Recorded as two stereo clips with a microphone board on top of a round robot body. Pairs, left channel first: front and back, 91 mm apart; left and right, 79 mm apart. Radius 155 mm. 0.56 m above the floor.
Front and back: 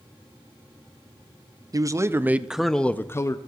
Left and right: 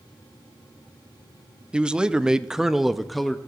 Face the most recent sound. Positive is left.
turn(degrees=5)